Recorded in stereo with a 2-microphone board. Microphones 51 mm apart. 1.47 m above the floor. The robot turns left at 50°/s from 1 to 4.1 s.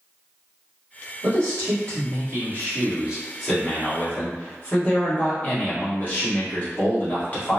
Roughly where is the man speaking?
Right.